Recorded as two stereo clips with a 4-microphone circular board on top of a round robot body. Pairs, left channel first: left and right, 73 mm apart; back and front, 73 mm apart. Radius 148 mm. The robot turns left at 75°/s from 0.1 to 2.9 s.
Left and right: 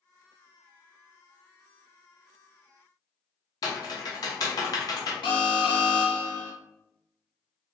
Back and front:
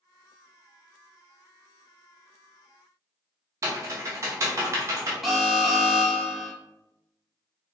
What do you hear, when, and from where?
3.6 s typing on a keyboard: 50° left, 0.7 m
5.2 s an alarm: 90° left, 0.8 m